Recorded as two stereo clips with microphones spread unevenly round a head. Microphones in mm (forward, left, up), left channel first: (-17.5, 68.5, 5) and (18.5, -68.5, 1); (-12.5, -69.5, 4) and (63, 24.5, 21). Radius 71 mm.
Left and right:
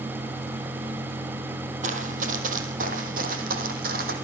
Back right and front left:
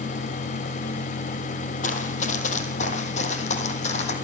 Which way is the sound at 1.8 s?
110° right.